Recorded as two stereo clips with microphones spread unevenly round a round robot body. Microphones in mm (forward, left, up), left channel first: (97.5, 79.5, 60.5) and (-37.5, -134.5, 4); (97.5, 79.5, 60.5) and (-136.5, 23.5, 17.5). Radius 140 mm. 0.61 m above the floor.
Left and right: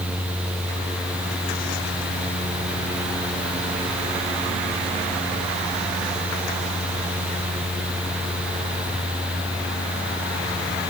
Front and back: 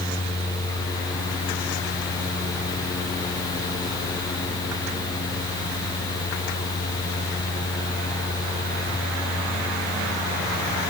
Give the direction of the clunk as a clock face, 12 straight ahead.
I don't hear a clunk.